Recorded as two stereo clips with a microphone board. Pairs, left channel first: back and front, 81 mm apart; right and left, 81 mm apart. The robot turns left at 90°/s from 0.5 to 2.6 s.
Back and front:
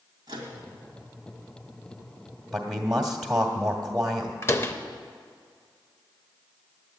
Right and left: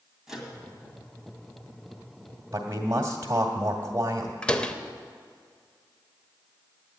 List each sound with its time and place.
0.3 s a microwave: 5° left, 2.5 m
2.5 s a man speaking: 85° left, 1.4 m; by 4.3 s 80° left, 1.4 m
4.4 s a door slam: 160° right, 0.7 m